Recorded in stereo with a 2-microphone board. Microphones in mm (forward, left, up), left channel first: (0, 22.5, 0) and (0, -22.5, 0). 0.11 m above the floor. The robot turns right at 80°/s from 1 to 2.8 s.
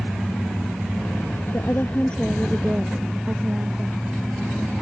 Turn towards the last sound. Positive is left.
turn(degrees=-145)